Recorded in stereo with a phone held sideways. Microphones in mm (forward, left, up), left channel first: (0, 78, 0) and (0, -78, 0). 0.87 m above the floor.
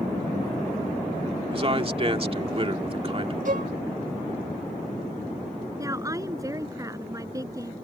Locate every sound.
1.5 s a man speaking: 40° right (ahead or behind)
3.5 s a violin: 65° right (ahead or behind)
5.8 s a woman speaking: 20° right (ahead or behind)